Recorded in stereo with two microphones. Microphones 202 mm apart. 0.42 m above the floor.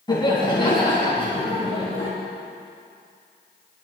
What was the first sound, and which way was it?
Laughter, 25° left (ahead or behind).